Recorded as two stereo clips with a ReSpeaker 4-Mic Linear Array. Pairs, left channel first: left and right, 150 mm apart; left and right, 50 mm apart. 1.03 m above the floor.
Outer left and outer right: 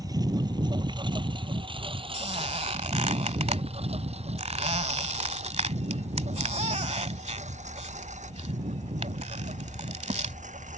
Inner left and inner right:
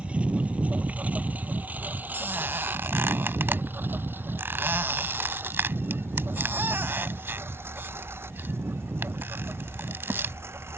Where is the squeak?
50° right (ahead or behind).